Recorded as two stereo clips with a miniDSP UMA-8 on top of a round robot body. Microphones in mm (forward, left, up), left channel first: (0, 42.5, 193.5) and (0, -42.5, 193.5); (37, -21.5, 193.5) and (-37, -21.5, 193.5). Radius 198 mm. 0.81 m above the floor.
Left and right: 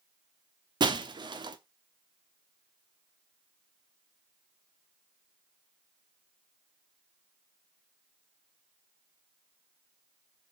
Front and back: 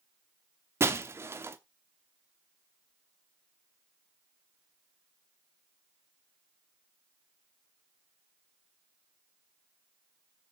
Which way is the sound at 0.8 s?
125° right.